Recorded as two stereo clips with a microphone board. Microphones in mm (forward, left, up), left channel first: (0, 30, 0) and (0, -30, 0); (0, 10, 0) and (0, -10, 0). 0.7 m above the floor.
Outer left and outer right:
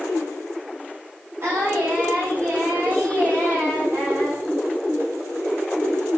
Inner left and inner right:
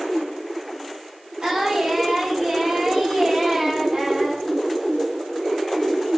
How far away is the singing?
About 3 m.